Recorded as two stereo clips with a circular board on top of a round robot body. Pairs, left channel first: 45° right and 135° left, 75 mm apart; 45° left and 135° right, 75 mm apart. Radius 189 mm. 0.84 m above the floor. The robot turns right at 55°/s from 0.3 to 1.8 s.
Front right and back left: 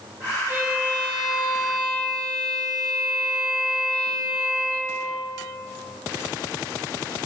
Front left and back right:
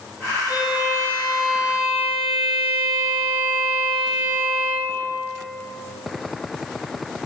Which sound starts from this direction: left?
A violin, at 0.5 s.